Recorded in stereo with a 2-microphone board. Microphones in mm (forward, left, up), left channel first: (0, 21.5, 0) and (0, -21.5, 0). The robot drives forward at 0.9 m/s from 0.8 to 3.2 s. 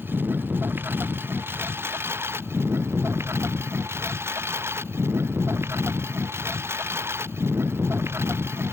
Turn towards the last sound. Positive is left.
turn(degrees=-85)